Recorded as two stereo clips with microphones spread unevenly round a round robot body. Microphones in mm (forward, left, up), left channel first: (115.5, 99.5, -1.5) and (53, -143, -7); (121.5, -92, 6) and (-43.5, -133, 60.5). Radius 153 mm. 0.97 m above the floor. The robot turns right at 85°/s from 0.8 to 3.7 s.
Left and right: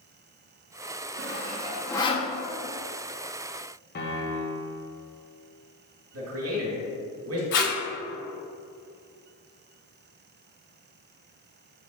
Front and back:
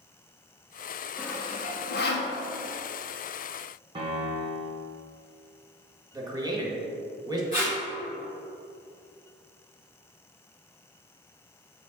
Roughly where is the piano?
Behind left.